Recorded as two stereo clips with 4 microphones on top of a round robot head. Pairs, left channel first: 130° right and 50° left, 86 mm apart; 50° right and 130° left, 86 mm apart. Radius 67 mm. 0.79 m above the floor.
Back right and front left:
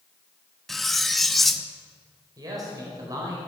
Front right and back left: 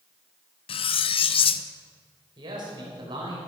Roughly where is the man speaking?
Left.